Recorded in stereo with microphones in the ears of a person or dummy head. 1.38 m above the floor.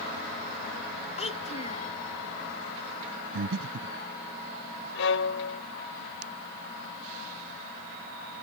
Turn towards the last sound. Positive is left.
turn(degrees=70)  # may be behind; listen again after turning